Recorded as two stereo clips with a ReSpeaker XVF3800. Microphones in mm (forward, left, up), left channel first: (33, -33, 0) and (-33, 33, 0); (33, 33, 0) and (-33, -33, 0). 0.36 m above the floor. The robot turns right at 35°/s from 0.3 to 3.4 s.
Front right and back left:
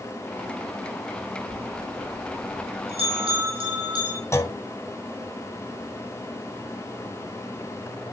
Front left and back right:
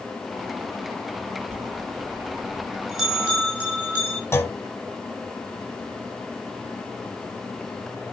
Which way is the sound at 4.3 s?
Straight ahead.